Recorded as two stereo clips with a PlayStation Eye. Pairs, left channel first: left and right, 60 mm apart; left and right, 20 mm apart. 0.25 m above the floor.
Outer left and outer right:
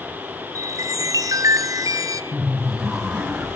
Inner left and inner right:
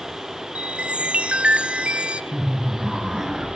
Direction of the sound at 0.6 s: 75° right (ahead or behind).